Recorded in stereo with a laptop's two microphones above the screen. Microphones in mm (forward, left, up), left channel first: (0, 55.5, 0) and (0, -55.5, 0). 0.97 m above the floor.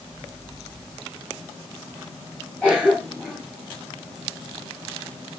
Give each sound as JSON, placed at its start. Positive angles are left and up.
{"t": 2.6, "sound": "a cough", "side_deg": 15, "distance_m": 5.5}